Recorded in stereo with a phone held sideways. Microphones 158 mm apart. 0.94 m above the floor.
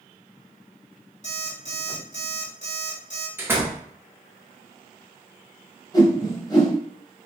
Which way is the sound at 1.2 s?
50° left (ahead or behind).